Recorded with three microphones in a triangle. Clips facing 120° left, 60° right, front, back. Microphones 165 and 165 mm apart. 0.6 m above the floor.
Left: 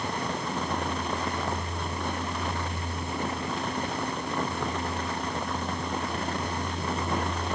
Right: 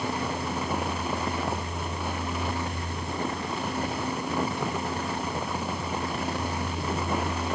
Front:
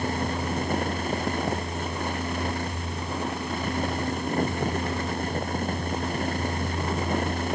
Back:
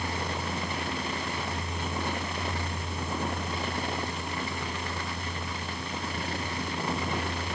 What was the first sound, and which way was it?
Only background noise.